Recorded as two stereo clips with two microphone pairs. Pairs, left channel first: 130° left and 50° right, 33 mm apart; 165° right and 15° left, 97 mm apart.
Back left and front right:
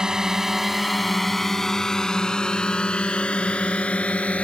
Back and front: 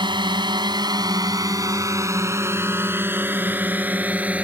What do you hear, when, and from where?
0.0 s a drone: 15° left; by 4.5 s 85° left